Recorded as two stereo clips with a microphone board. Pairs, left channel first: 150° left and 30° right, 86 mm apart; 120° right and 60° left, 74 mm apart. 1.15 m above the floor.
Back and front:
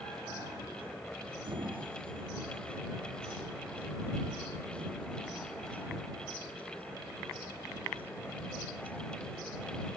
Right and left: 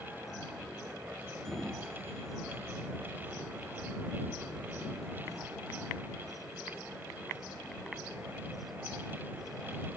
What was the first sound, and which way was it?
A sliding door, 35° right.